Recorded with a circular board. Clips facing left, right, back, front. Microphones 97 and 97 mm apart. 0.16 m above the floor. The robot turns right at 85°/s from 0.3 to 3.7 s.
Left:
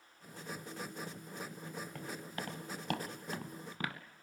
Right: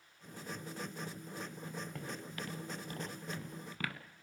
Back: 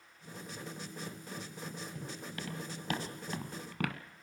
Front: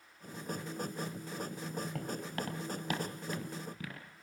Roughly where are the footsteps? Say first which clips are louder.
Left 1 dB, front 5 dB; ahead.